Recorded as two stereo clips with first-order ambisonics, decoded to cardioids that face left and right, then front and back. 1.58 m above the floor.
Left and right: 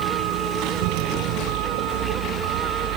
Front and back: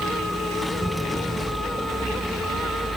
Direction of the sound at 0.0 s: 90° right.